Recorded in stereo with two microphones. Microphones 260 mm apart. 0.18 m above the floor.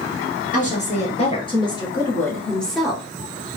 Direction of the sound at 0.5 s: 30° left (ahead or behind).